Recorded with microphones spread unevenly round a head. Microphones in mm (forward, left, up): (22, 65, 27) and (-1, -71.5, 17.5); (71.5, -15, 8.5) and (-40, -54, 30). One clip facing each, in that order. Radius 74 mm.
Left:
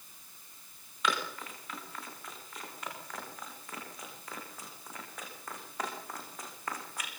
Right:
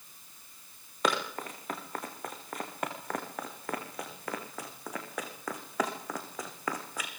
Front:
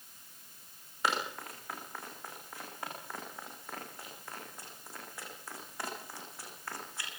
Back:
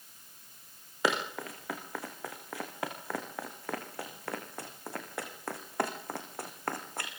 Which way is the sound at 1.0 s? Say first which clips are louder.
Right 4 dB, back 3 dB; 155° right.